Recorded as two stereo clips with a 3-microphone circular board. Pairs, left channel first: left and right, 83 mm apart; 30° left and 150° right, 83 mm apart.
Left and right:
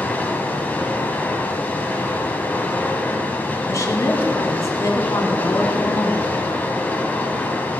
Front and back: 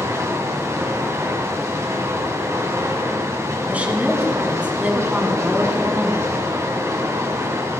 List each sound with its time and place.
0.0 s running water: 160° left, 1.9 m
3.7 s a woman speaking: 140° left, 2.5 m